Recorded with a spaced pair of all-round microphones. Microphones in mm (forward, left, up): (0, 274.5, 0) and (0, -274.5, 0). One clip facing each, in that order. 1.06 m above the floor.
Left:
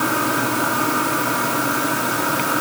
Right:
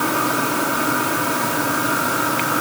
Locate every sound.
Only background noise.